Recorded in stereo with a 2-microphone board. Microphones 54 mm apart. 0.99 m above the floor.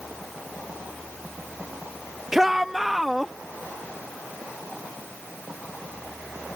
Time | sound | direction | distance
2.3 | a shout | 5° right (ahead or behind) | ?